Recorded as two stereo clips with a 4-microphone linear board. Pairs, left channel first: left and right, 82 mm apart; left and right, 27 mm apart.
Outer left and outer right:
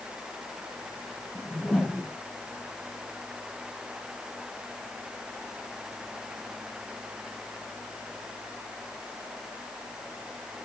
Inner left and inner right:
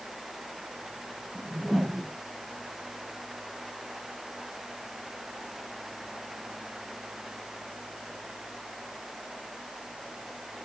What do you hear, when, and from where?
1.4 s a whoosh: 5° left (ahead or behind), 1.6 m